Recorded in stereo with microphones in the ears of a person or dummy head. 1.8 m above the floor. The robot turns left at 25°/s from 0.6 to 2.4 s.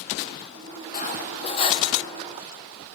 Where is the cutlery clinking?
45° left (ahead or behind), 1.6 m; by 1.9 s 30° left (ahead or behind), 1.6 m.